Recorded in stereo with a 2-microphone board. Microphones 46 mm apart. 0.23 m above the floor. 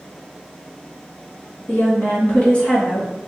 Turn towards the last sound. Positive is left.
turn(degrees=20)  # may be behind; listen again after turning